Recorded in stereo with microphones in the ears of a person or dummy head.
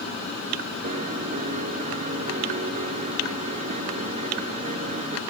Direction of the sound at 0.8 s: 35° right (ahead or behind).